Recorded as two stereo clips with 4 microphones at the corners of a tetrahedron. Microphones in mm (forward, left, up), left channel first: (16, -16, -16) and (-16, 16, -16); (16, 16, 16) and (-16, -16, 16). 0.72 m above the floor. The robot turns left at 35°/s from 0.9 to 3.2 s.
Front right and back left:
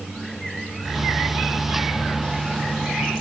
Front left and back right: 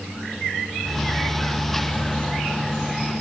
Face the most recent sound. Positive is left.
No sound to turn to.